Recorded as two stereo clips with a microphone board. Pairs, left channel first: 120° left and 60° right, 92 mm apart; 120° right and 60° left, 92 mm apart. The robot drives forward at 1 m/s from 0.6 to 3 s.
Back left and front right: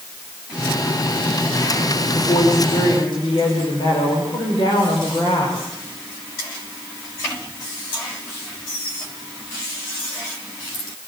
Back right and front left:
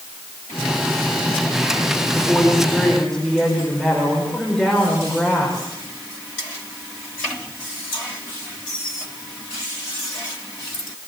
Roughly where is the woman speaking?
Behind left.